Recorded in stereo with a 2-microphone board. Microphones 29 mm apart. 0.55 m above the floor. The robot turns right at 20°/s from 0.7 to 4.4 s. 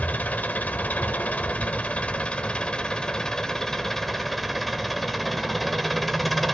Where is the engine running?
105° left, 1.3 m; by 6.5 s 175° left, 1.3 m.